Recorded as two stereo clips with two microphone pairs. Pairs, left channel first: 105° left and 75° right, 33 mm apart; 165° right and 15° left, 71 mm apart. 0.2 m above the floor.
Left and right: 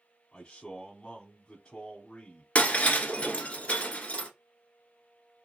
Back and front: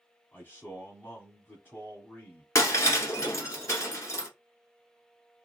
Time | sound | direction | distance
0.3 | a man speaking | 160° left | 1.2 m
2.5 | breaking glass | 155° left | 1.2 m